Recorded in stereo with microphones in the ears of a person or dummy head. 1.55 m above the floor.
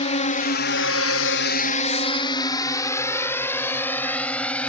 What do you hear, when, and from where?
0.0 s a drone: 25° left (ahead or behind); by 4.7 s 10° left (ahead or behind)